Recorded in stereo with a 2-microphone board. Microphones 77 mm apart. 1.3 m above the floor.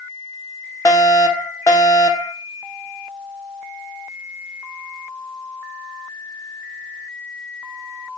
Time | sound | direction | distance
0.8 | a fire alarm | 45° left (ahead or behind) | 2 m